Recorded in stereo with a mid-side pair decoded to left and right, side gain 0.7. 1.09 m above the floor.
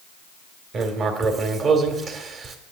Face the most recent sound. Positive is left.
turn(degrees=-35)